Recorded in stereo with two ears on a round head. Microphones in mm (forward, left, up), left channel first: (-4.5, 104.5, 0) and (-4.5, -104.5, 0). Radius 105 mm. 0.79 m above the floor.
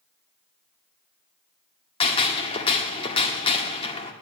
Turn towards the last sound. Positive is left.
turn(degrees=25)  # may be behind; listen again after turning